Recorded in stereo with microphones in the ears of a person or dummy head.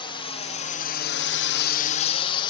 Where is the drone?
25° left (ahead or behind).